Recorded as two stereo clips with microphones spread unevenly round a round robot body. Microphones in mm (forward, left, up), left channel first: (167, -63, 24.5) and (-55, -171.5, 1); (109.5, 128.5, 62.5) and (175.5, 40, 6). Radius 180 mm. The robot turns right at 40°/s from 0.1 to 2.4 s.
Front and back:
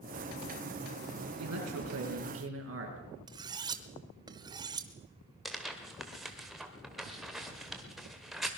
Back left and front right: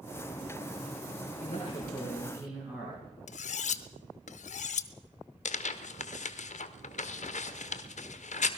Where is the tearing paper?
125° left, 1.4 m.